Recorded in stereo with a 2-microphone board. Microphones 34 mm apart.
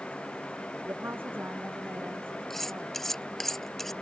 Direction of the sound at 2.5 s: 10° left (ahead or behind).